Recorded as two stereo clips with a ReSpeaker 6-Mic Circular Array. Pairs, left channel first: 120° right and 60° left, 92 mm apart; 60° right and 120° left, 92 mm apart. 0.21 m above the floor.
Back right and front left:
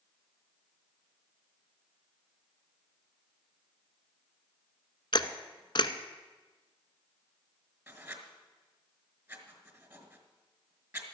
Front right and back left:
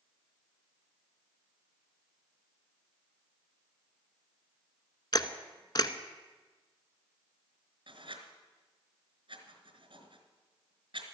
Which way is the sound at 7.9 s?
120° left.